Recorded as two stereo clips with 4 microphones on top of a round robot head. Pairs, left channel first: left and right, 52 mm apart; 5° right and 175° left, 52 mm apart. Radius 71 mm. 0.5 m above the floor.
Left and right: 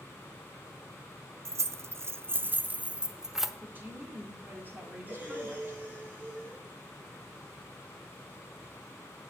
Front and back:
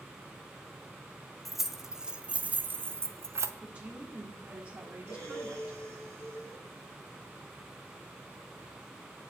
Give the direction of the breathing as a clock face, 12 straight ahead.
5 o'clock.